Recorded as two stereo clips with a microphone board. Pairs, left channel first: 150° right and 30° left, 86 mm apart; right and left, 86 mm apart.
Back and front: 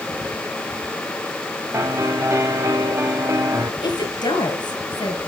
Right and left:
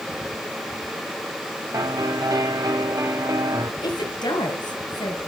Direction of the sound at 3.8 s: 115° right.